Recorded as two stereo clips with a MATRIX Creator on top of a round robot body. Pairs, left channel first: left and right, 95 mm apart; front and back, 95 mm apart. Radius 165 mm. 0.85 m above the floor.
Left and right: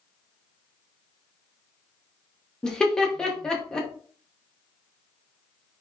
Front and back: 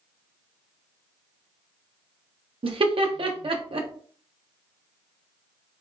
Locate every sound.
2.6 s laughter: 175° left, 0.8 m